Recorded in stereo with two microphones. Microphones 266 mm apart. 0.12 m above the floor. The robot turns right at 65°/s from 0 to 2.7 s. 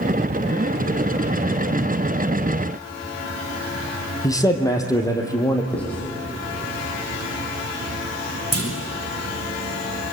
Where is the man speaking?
10° left (ahead or behind), 3.5 m.